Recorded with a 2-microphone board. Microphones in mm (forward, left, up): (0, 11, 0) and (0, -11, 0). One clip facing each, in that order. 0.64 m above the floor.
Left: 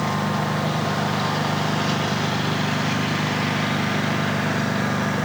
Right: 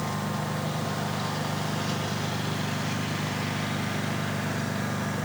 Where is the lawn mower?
25° left (ahead or behind).